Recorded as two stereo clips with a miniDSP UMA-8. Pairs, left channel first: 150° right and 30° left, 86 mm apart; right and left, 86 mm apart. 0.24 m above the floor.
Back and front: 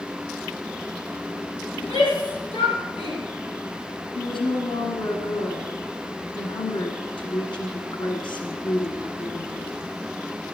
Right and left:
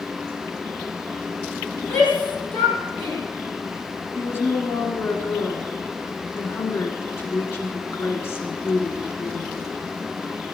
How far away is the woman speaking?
About 2 m.